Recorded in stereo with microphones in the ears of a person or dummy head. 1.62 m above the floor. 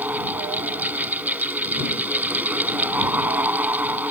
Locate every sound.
0.0 s a fan: 10° right (ahead or behind)